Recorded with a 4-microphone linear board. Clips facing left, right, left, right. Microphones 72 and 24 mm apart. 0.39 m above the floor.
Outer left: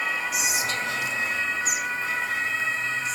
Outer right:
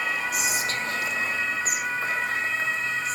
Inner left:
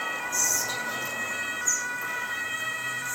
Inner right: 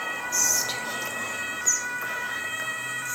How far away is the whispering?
About 1.8 m.